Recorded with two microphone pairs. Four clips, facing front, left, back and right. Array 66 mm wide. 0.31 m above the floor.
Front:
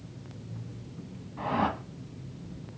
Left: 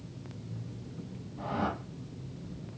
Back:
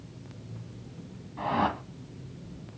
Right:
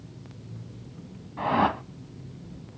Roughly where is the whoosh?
Right.